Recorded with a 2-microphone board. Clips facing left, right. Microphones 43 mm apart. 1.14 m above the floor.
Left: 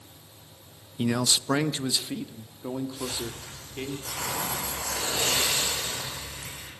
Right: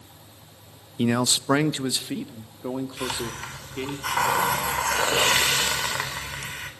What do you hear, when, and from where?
1.0 s a man speaking: 25° right (ahead or behind), 0.6 m; by 4.0 s 15° right (ahead or behind), 3 m
3.0 s a hiss: 85° right, 4.5 m